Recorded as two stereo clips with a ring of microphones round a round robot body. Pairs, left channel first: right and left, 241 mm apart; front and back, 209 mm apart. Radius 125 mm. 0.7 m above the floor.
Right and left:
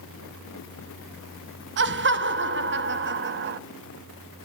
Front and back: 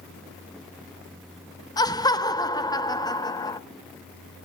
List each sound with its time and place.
1.8 s laughter: 65° left, 1.1 m